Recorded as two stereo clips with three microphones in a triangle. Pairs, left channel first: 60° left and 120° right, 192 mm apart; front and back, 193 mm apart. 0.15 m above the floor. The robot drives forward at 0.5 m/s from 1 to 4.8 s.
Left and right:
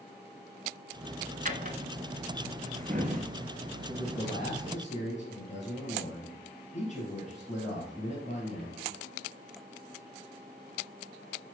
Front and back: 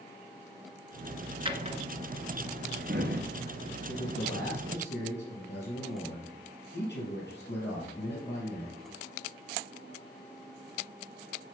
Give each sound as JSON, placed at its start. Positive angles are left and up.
{"t": 1.4, "sound": "a drawer", "azimuth_deg": -130, "distance_m": 0.7}
{"t": 3.9, "sound": "a man speaking", "azimuth_deg": 10, "distance_m": 4.5}